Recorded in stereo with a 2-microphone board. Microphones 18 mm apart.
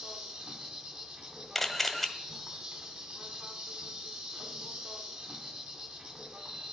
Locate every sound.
0.0 s an insect: 60° right (ahead or behind), 1.7 m
1.6 s a camera shutter: 5° left (ahead or behind), 1.0 m